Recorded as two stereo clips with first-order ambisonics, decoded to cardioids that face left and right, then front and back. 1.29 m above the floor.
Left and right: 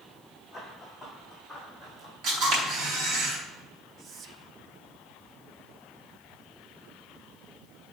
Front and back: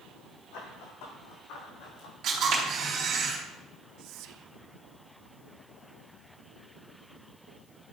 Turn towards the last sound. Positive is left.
turn(degrees=-150)